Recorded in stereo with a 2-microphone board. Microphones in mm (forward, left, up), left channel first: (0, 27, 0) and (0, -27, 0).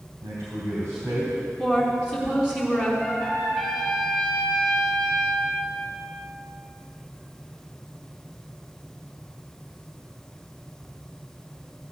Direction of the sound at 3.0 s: 5° right (ahead or behind).